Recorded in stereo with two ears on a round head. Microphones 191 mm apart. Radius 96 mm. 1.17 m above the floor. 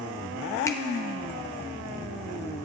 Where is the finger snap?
15° left (ahead or behind), 0.7 m.